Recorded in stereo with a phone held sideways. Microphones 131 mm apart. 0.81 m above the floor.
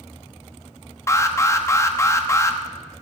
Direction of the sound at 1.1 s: 25° left (ahead or behind).